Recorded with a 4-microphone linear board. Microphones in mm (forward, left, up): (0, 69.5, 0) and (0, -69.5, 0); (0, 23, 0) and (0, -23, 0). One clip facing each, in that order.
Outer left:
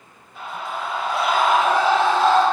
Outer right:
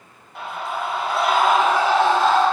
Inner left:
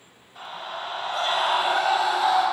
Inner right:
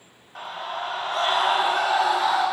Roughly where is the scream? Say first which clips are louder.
Outer right 2 dB, inner right 3 dB; right.